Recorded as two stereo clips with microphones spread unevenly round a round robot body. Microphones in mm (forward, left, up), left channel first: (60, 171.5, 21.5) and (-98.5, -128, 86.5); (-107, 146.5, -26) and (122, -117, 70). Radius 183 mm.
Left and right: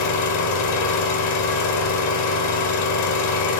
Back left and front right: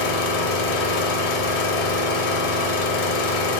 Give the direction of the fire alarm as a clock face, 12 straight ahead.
No fire alarm in this recording.